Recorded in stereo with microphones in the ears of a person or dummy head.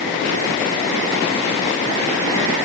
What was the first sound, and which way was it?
Only background noise.